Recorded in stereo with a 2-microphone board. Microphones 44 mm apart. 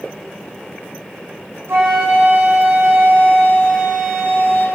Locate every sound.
1.7 s a flute: 70° right (ahead or behind), 9.5 m